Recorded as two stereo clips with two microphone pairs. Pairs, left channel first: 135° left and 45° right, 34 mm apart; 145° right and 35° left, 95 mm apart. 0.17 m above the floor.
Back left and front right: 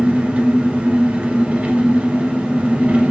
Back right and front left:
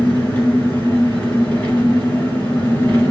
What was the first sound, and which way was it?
An engine running, 75° right.